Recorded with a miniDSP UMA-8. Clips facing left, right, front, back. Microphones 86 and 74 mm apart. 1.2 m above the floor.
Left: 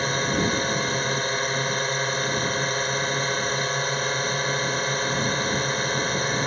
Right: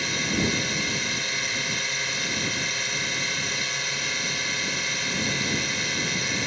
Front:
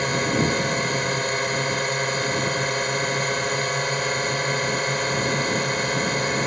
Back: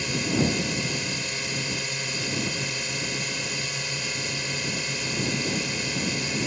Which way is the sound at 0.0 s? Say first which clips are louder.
Left 3 dB, front 4 dB; 40° left.